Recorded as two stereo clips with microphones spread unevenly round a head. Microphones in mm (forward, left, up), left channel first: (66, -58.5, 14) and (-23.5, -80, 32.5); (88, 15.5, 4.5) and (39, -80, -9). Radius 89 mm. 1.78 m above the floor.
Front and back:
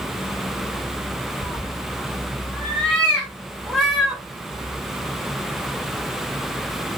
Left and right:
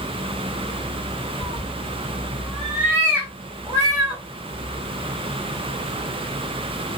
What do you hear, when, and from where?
1.4 s a cat meowing: 80° left, 1.4 m; by 4.2 s 95° right, 1.5 m